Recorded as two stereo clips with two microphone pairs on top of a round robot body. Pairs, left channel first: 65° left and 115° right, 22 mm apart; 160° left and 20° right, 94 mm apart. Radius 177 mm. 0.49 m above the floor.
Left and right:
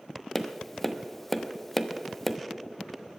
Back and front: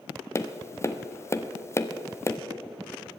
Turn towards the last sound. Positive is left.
turn(degrees=135)